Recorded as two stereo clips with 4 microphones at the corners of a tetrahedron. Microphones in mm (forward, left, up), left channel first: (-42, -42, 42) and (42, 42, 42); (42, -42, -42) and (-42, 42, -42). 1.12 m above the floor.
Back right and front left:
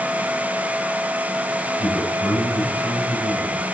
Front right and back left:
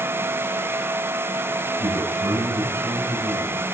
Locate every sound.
1.8 s a man speaking: 115° left, 8 m